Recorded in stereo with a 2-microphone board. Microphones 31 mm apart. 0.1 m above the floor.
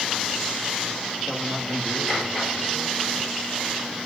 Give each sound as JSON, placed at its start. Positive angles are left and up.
{"t": 1.2, "sound": "a man speaking", "side_deg": 0, "distance_m": 6.5}